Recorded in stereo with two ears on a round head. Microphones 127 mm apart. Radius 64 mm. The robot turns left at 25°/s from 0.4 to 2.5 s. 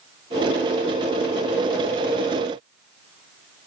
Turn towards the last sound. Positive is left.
No sound to turn to.